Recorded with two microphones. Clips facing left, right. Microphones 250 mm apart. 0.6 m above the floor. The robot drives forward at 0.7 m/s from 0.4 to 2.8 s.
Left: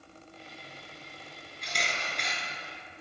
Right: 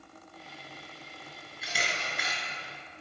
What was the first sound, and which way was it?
A camera shutter, 5° right (ahead or behind).